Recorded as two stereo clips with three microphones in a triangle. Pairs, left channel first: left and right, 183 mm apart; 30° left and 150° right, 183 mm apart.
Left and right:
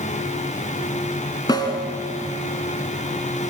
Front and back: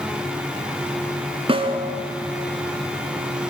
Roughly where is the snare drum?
Behind left.